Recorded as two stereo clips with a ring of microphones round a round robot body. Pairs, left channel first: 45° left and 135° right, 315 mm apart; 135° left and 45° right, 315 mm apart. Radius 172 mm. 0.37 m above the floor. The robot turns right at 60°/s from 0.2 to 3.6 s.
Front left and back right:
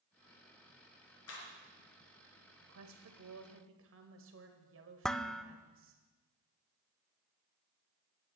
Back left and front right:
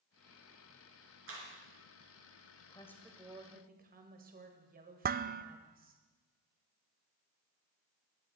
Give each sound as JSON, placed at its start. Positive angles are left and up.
{"t": 1.3, "sound": "a clap", "azimuth_deg": 0, "distance_m": 5.0}
{"t": 2.6, "sound": "a woman speaking", "azimuth_deg": -160, "distance_m": 2.0}
{"t": 5.0, "sound": "dishes clattering", "azimuth_deg": -40, "distance_m": 0.5}